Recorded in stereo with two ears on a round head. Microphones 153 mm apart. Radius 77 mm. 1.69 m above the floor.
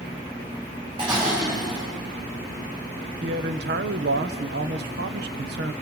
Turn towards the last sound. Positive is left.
turn(degrees=-65)  # may be behind; listen again after turning